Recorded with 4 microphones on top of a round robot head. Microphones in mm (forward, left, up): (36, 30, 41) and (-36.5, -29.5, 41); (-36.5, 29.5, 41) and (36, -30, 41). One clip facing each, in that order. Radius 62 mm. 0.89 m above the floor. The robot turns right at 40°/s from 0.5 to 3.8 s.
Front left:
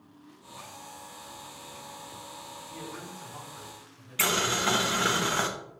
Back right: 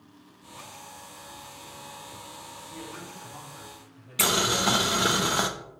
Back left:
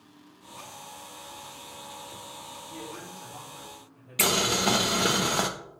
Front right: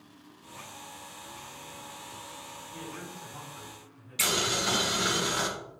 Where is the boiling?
150° left, 1.0 m.